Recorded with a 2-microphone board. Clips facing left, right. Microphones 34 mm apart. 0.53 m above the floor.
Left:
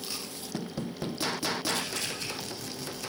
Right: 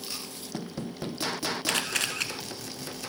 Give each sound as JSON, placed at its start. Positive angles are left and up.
{"t": 1.7, "sound": "a camera shutter", "side_deg": -75, "distance_m": 1.2}